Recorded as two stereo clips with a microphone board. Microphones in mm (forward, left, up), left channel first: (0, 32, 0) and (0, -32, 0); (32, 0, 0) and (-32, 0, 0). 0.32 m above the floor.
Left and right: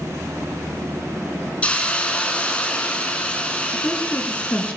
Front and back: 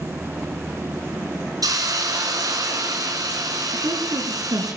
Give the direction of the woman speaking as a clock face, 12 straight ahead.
7 o'clock.